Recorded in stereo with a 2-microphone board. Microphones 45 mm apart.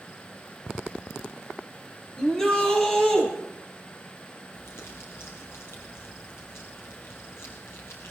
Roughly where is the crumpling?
Left.